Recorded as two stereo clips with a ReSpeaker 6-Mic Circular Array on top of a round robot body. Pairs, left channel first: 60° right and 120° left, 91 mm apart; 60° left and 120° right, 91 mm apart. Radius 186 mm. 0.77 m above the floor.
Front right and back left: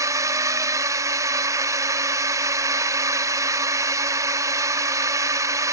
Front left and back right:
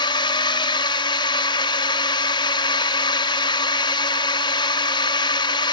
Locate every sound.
0.0 s a drone: 70° left